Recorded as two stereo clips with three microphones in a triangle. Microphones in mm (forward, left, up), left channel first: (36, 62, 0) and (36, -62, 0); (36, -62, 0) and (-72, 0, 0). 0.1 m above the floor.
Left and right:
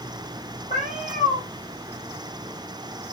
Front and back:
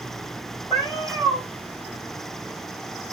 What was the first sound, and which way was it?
A cat meowing, 70° left.